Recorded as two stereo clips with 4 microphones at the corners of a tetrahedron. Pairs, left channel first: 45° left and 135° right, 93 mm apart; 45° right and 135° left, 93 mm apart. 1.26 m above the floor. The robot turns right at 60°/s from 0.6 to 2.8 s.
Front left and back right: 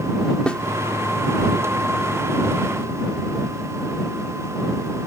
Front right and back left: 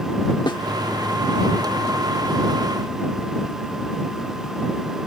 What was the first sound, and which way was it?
A snare drum, 30° right.